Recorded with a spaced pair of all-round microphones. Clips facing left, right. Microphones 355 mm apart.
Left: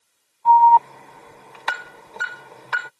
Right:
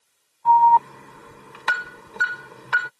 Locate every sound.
0.5 s an alarm: 20° right (ahead or behind)